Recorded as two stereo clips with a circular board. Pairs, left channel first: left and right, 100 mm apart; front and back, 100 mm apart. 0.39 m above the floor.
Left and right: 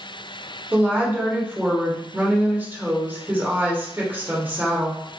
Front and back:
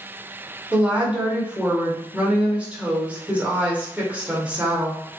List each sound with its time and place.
0.7 s a woman speaking: 125° right, 1.1 m